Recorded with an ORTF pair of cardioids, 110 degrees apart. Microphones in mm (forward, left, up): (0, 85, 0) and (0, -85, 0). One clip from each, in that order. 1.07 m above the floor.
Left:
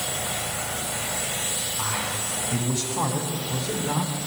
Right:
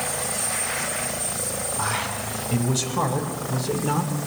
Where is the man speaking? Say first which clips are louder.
Right 4 dB; 40° right, 6 m; by 4.2 s 30° right, 3 m.